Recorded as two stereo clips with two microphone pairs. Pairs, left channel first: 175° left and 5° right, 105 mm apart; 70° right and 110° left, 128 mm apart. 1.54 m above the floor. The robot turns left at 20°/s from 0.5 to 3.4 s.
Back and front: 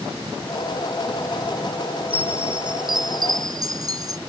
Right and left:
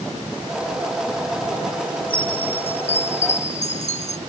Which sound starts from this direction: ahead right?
A chime, at 2.1 s.